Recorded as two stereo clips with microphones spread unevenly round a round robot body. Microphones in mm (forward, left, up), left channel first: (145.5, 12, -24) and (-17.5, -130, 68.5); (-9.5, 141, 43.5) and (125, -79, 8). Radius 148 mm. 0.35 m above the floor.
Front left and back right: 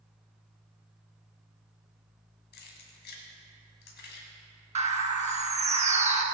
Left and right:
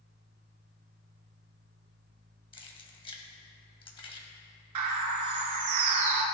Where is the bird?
80° right, 1.3 m.